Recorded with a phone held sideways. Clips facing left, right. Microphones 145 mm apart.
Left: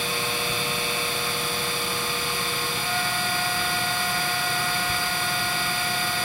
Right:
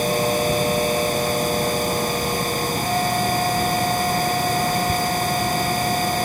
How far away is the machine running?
About 1.0 m.